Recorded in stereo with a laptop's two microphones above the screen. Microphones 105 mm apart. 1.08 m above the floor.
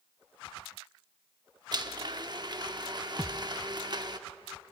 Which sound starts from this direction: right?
A blender, at 1.7 s.